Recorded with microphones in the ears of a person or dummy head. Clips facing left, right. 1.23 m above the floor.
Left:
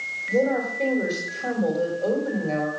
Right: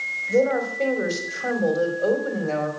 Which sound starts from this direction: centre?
A woman speaking, at 0.3 s.